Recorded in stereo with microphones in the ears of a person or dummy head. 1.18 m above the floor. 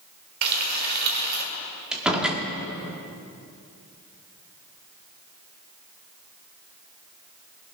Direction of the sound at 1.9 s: 10° right (ahead or behind).